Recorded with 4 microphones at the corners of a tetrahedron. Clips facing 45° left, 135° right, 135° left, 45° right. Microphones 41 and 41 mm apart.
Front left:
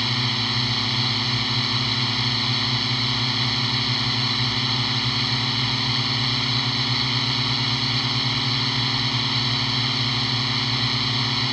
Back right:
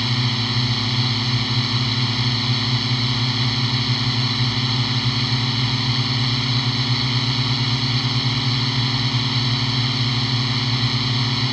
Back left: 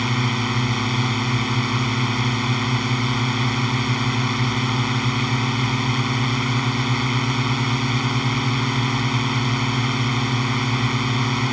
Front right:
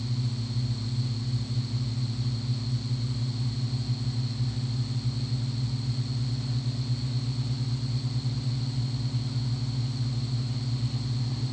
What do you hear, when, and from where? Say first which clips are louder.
0.0 s a drone: back right 1 dB, back left 13 dB; 130° left